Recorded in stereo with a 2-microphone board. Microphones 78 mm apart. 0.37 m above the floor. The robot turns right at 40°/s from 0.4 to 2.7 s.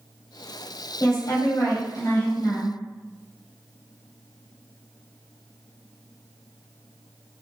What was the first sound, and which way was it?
A woman speaking, 55° left.